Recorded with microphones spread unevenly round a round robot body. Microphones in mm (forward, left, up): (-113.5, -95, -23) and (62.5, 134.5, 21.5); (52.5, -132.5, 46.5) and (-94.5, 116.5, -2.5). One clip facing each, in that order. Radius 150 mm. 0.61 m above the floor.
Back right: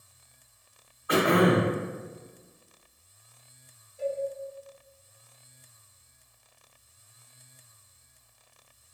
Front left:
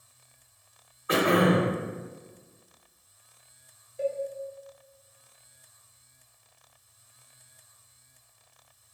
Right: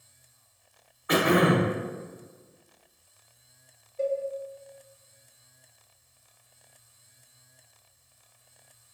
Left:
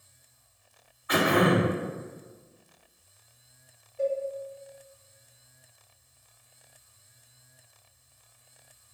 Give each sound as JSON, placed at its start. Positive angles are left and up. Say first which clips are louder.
{"t": 1.1, "sound": "throat clearing", "louder": "back right 1 dB, right 1 dB", "azimuth_deg": -20, "distance_m": 0.9}
{"t": 4.0, "sound": "a cowbell", "louder": "front left 1 dB, even", "azimuth_deg": 10, "distance_m": 1.0}